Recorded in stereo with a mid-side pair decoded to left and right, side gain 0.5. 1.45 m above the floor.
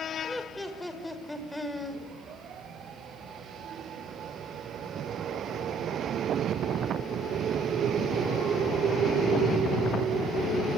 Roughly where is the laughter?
Ahead.